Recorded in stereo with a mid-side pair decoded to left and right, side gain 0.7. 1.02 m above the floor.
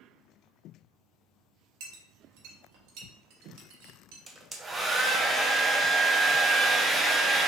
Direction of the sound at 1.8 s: 70° right.